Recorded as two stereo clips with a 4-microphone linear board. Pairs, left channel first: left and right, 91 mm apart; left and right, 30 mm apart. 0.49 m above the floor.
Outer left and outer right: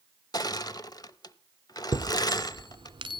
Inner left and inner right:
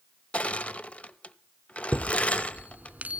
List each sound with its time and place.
0.3 s crushing: 45° left (ahead or behind), 0.6 m
1.9 s a chime: 65° right (ahead or behind), 0.7 m